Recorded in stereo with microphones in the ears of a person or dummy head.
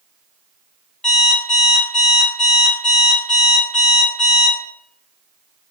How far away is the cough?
No cough in this recording.